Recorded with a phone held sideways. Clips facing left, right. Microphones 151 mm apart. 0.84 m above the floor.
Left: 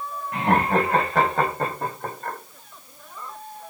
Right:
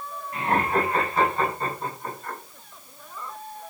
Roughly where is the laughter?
Left.